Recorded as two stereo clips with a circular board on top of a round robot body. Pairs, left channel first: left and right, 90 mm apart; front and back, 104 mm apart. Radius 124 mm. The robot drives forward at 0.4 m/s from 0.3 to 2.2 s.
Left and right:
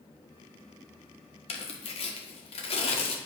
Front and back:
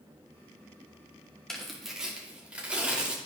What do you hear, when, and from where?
1.5 s tearing paper: 85° left, 1.1 m; by 3.1 s 100° left, 1.1 m